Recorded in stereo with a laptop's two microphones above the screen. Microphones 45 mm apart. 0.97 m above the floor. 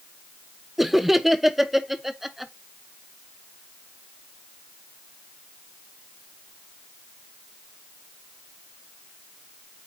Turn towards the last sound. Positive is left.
turn(degrees=-5)  # may be behind; listen again after turning